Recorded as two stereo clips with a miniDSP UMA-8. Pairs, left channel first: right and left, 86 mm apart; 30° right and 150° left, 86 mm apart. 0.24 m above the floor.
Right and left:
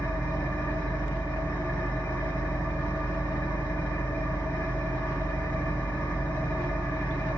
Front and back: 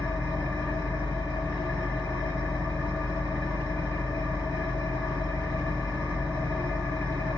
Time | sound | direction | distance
0.0 | an engine running | 50° right | 1.0 m